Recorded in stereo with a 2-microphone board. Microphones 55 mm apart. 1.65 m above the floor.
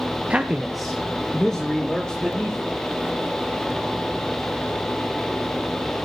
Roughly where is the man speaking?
Right.